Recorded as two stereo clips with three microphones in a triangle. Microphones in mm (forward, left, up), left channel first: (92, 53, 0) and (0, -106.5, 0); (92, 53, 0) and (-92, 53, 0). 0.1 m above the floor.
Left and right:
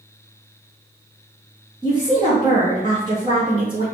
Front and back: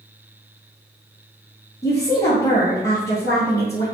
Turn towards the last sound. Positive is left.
turn(degrees=-65)